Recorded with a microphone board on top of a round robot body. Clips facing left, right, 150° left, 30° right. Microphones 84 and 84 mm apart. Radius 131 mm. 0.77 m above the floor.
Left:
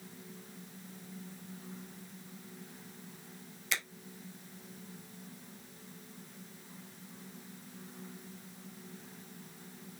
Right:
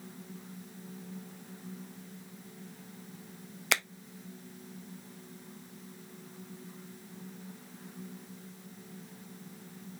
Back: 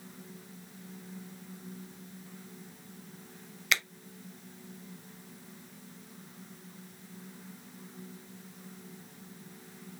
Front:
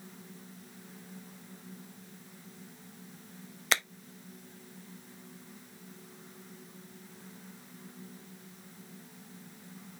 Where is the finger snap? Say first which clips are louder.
Right 7 dB, even; 80° right, 0.7 m.